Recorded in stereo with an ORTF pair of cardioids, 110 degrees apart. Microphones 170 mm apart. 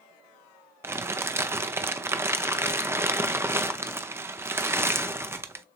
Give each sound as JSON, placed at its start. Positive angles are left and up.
{"t": 0.8, "sound": "crumpling", "azimuth_deg": -15, "distance_m": 0.6}